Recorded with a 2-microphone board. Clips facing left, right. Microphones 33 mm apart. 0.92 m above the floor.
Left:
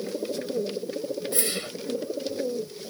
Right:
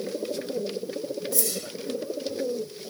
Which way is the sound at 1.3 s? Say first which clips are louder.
Left 2 dB; 40° left (ahead or behind).